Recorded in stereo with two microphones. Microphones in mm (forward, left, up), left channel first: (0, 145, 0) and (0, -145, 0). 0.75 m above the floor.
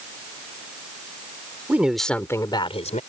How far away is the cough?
No cough in this recording.